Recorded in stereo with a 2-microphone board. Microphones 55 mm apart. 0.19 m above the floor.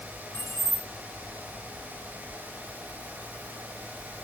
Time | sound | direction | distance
0.3 | keys jangling | 65° left (ahead or behind) | 1.9 m